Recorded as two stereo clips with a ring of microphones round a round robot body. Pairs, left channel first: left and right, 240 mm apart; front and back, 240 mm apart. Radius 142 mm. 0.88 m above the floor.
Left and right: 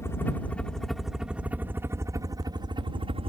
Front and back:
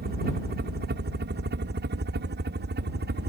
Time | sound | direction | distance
0.0 | a helicopter | 165° left | ?